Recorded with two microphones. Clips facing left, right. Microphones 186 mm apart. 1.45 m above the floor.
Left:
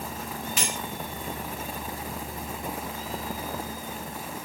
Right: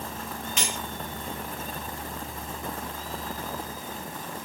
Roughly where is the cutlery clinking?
Centre.